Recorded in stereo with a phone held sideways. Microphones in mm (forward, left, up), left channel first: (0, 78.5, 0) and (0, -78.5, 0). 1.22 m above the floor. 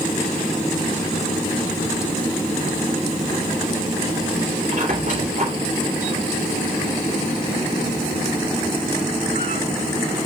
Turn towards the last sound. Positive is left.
turn(degrees=-55)  # may be behind; listen again after turning